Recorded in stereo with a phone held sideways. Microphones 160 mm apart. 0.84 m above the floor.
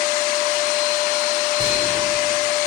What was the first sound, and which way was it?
Whispering, 30° right (ahead or behind).